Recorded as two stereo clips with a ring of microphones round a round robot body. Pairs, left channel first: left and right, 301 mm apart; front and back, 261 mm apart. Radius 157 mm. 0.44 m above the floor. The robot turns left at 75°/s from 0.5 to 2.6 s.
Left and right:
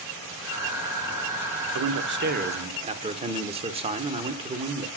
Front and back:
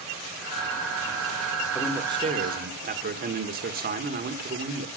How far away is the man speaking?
About 1.2 m.